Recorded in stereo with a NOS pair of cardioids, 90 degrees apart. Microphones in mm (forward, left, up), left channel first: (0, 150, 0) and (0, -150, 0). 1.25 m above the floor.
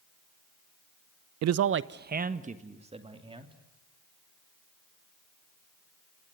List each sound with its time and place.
1.4 s a man speaking: 65° right, 0.6 m; by 3.5 s 15° right, 2.5 m